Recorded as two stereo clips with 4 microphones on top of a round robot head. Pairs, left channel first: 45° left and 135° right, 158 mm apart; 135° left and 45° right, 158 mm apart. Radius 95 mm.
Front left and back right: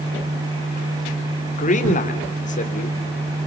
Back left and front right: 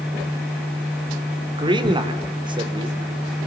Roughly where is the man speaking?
Ahead.